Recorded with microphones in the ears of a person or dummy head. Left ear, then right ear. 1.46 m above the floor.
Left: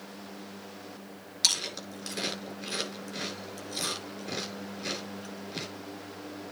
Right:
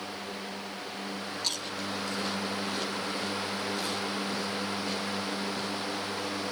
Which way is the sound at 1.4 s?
75° left (ahead or behind).